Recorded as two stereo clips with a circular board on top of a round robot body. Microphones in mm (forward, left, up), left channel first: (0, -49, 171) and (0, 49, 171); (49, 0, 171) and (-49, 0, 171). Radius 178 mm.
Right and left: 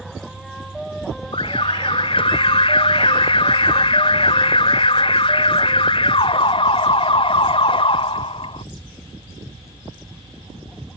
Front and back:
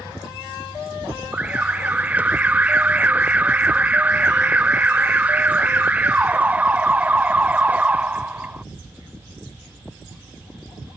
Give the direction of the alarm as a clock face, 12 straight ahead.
4 o'clock.